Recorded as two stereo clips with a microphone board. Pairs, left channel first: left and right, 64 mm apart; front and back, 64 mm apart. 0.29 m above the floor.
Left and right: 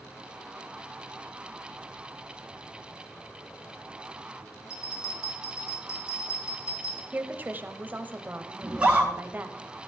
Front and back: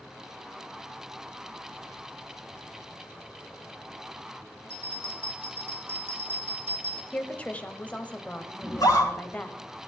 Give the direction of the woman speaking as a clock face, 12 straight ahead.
2 o'clock.